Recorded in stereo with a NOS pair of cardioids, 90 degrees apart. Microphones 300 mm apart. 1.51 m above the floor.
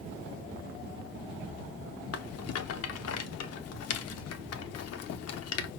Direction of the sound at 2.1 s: 55° left.